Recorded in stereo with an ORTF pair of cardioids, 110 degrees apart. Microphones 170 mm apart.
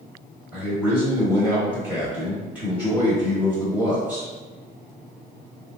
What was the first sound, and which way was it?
A man speaking, 10° right.